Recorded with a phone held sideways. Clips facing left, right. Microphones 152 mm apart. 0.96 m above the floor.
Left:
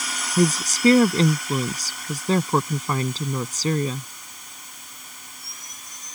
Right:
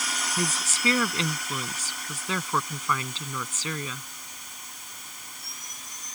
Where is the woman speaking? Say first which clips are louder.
Left 12 dB; 40° left (ahead or behind).